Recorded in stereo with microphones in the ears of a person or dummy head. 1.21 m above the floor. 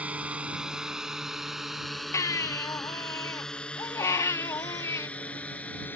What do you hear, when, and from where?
0.0 s a drone: 5° right (ahead or behind); by 6.0 s 10° left (ahead or behind)
2.1 s a baby crying: 15° left (ahead or behind)